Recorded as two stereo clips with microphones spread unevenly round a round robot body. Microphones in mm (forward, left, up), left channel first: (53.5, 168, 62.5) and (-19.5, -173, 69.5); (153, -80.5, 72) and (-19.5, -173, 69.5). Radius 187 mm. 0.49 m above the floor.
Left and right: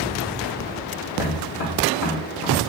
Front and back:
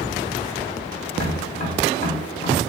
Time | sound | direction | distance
1.1 | tapping | 95° left | 2.5 m